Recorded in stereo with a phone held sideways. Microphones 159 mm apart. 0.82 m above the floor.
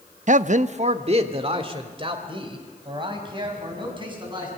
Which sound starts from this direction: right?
A man speaking, at 0.3 s.